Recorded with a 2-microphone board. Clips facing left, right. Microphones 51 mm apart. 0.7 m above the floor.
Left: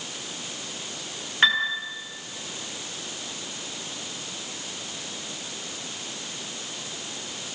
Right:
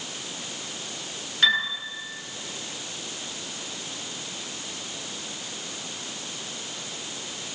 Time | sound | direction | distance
1.4 | a piano | 35° left (ahead or behind) | 8.5 m